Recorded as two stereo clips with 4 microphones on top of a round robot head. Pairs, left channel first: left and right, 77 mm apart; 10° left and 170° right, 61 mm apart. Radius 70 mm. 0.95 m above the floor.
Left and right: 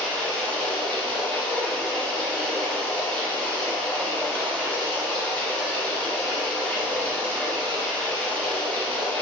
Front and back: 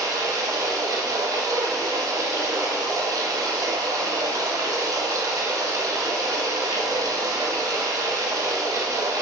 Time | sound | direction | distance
0.0 | running water | 165° left | 0.9 m